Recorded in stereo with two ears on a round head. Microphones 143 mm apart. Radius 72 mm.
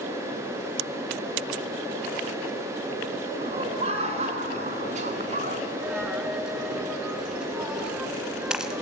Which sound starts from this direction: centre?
A dropped coin, at 5.8 s.